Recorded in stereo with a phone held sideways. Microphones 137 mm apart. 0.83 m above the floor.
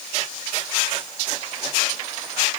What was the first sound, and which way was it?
Only background noise.